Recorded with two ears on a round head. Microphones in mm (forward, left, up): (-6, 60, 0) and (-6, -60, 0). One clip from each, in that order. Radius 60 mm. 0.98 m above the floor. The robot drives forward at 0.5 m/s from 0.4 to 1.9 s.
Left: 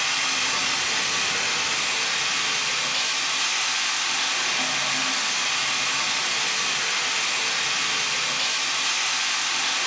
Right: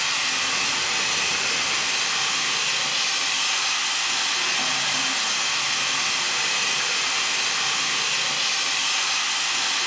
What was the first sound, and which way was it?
Running water, 10° left (ahead or behind).